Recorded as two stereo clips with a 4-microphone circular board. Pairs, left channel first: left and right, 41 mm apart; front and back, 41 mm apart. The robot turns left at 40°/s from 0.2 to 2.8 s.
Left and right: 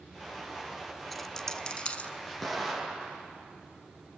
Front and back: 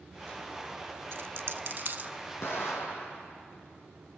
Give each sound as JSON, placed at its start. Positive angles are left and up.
{"t": 1.1, "sound": "a dropped coin", "azimuth_deg": 175, "distance_m": 0.8}
{"t": 2.4, "sound": "an explosion", "azimuth_deg": 5, "distance_m": 4.0}